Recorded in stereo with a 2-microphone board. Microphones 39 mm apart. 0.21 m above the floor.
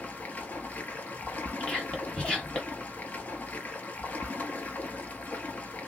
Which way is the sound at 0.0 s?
40° left (ahead or behind).